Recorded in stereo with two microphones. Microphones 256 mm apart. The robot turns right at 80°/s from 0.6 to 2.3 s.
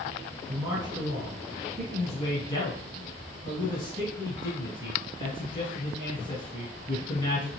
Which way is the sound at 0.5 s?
20° right (ahead or behind).